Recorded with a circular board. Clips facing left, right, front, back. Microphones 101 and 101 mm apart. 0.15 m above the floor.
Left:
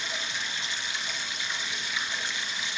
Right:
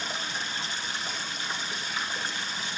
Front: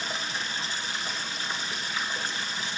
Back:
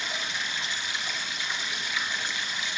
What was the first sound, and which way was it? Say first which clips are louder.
Running water: right 1 dB, front 1 dB; 45° right.